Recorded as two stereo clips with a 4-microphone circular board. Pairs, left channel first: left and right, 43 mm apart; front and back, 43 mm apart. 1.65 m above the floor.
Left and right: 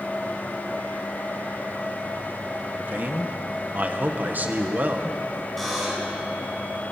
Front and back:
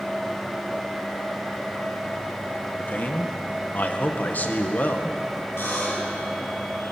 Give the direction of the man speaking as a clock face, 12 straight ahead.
1 o'clock.